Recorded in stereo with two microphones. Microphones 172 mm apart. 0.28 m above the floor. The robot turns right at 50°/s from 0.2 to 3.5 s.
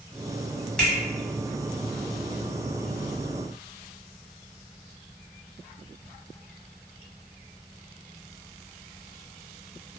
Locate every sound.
0.8 s a finger snap: 5° left (ahead or behind), 1.1 m; by 1.0 s centre (ahead or behind), 1.1 m